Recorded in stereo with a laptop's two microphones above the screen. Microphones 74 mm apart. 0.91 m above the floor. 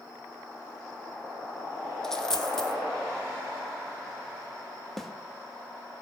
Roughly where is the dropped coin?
Centre.